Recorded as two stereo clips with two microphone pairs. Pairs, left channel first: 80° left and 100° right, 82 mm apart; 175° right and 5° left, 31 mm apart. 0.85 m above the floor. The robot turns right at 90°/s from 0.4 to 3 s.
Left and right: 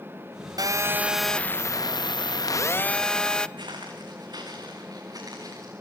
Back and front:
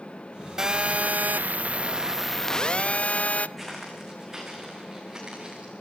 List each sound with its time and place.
0.6 s a phone buzzing: 65° right, 0.6 m; by 3.5 s 155° left, 0.6 m
3.6 s footsteps: 85° right, 5 m; by 5.7 s 60° right, 6.5 m